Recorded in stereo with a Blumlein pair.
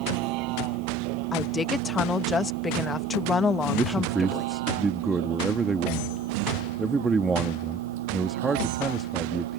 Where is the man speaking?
10° right.